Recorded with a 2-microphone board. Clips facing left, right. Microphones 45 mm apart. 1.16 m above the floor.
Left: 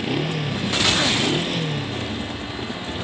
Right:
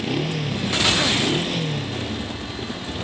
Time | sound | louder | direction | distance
0.0 | a motorcycle | even | 5° left (ahead or behind) | ?